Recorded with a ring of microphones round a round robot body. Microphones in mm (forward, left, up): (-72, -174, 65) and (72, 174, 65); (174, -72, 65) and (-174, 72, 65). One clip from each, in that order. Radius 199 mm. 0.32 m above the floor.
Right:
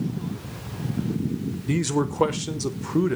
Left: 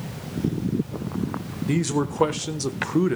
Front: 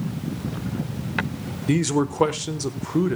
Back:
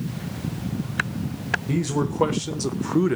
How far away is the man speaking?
About 1.1 m.